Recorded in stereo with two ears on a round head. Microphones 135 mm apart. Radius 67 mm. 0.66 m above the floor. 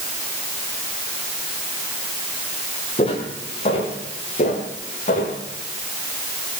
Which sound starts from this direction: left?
Footsteps, at 3.0 s.